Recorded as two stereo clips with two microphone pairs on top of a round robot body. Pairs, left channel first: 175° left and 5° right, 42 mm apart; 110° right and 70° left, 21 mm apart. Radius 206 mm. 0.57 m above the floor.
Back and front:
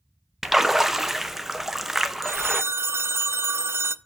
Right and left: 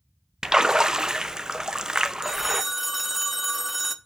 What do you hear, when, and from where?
0.4 s a splash: 55° left, 1.1 m
2.2 s a phone ringing: 15° right, 0.6 m